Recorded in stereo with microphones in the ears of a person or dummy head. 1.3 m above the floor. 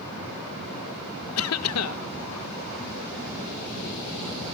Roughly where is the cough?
Left.